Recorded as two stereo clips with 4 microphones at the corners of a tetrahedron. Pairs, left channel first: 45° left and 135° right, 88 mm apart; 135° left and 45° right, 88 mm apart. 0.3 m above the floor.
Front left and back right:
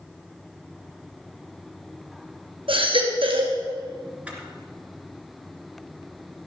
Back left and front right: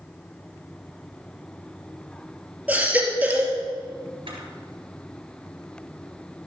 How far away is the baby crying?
About 2.5 m.